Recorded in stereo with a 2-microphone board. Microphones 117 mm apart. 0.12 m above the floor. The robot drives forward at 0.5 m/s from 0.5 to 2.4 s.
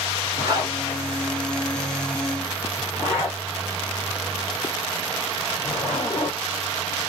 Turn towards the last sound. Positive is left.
turn(degrees=-25)  # may be behind; listen again after turning